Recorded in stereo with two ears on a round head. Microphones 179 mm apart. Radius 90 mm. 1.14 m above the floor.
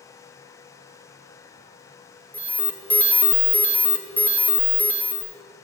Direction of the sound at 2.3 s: 5° left (ahead or behind).